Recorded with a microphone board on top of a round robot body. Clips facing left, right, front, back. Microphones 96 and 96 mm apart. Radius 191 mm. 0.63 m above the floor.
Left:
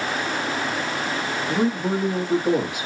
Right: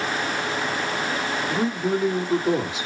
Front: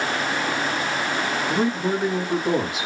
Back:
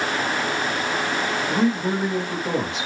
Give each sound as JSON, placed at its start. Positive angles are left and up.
{"t": 1.5, "sound": "a man speaking", "azimuth_deg": 85, "distance_m": 1.7}